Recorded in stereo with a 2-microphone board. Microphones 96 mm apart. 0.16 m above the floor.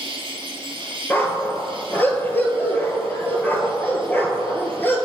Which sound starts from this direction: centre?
A dog barking, at 1.1 s.